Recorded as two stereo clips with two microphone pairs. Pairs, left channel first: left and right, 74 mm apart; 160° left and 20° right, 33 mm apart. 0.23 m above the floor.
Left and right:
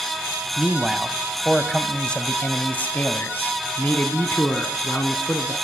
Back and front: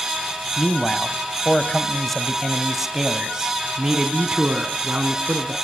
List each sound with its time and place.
0.6 s a man speaking: 170° right, 1.4 m; by 5.5 s 30° left, 2.5 m